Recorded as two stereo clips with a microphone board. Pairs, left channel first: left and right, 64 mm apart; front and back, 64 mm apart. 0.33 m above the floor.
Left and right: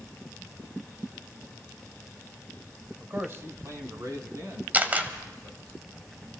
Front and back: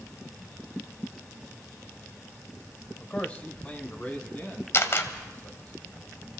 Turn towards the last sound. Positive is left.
turn(degrees=-35)